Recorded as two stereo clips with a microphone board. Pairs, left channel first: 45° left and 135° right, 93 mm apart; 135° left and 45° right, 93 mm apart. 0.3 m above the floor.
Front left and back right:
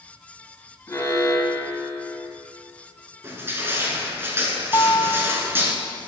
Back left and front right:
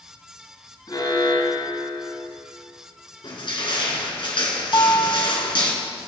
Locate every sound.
0.9 s an alarm: 105° left, 2.5 m
3.2 s crushing: 160° left, 2.5 m
4.7 s a guitar: 95° left, 0.8 m